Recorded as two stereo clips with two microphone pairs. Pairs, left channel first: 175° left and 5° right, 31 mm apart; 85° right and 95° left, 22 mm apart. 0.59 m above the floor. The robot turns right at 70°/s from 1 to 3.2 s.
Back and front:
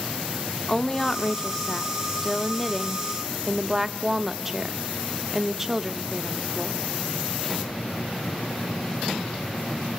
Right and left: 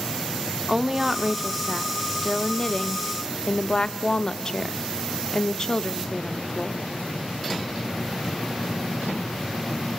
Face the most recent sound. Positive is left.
turn(degrees=-75)